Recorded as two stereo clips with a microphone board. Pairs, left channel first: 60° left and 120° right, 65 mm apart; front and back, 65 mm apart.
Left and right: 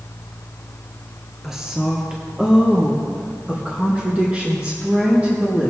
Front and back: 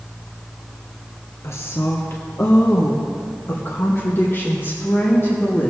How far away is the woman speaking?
About 2 m.